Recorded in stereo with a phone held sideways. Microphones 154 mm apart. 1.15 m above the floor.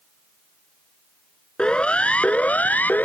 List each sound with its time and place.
1.6 s a siren: 5° left (ahead or behind); by 3.1 s 10° left (ahead or behind)